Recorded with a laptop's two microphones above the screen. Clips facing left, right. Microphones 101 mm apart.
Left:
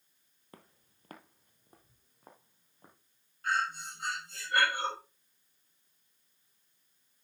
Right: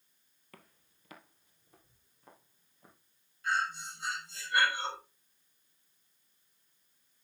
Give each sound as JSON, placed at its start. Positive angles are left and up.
{"t": 0.5, "sound": "footsteps", "side_deg": 25, "distance_m": 1.2}
{"t": 3.4, "sound": "breathing", "side_deg": 50, "distance_m": 5.0}